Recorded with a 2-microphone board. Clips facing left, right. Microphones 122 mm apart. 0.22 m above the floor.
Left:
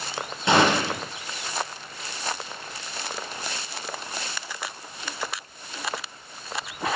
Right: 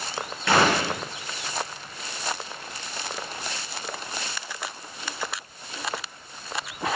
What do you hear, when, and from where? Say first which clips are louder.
0.5 s a gunshot: left 1 dB; 20° left (ahead or behind), 5 m